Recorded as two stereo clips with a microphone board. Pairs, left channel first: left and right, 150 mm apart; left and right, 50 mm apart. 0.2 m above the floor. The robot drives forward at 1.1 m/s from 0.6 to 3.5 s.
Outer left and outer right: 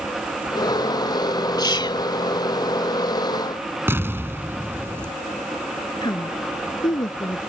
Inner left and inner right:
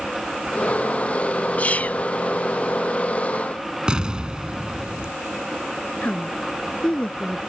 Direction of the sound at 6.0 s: 30° left (ahead or behind).